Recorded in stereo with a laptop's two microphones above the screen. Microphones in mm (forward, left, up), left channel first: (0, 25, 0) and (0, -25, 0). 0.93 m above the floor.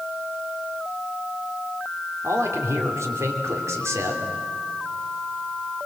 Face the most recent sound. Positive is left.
turn(degrees=-75)  # may be behind; listen again after turning